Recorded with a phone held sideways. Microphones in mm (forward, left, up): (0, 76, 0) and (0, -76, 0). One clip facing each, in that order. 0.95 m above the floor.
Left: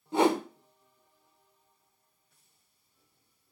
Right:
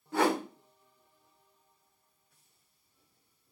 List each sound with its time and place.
0.1 s a whoosh: 20° left (ahead or behind), 0.8 m